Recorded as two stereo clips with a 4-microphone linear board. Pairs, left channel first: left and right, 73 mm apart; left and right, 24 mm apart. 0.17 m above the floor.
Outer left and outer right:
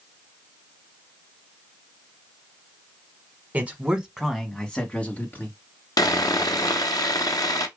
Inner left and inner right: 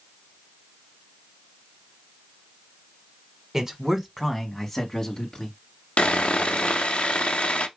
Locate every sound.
3.5 s a man speaking: 20° right (ahead or behind), 1.1 m; by 5.6 s 30° left (ahead or behind), 1.3 m
6.0 s sawing: 60° left (ahead or behind), 0.8 m